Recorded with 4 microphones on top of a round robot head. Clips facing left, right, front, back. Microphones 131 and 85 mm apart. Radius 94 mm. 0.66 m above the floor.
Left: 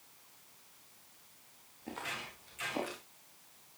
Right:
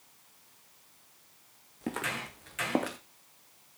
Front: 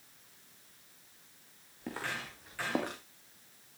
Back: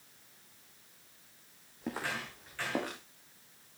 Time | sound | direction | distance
1.8 | footsteps | 105° right | 3.5 m